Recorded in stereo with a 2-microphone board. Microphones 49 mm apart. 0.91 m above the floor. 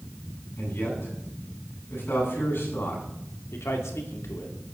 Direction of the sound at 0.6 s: 55° left (ahead or behind).